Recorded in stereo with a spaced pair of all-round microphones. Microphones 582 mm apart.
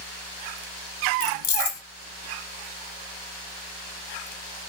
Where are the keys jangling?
60° left (ahead or behind), 0.6 m.